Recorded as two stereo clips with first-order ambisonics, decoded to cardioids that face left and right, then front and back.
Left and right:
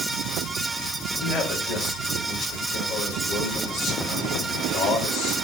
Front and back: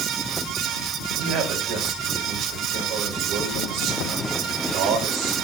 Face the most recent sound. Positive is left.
turn(degrees=135)